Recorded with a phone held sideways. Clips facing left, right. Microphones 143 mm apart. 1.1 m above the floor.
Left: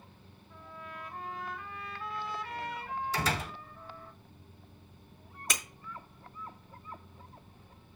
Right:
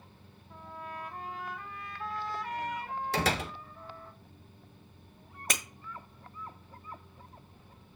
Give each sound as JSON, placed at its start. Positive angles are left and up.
{"t": 0.5, "sound": "a trumpet", "side_deg": -45, "distance_m": 2.5}
{"t": 3.1, "sound": "a door slam", "side_deg": -70, "distance_m": 1.3}
{"t": 5.5, "sound": "breaking glass", "side_deg": -60, "distance_m": 1.5}